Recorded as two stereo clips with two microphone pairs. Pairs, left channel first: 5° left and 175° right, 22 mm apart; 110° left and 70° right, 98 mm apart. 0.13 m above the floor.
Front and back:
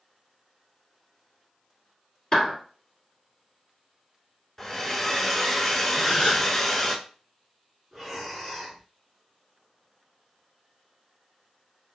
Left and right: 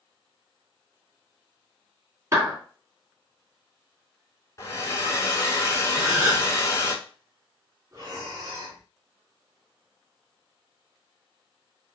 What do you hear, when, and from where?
2.3 s a clap: 40° right, 1.6 m
4.6 s a hair dryer: 75° left, 0.7 m
6.0 s a gasp: 30° right, 1.7 m
7.9 s breathing: 75° right, 1.5 m